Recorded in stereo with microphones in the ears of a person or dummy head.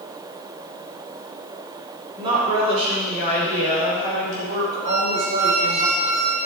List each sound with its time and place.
2.2 s a woman speaking: 30° right (ahead or behind), 4.5 m; by 5.8 s 60° right (ahead or behind), 7.5 m
4.8 s a squeak: 30° right (ahead or behind), 2.0 m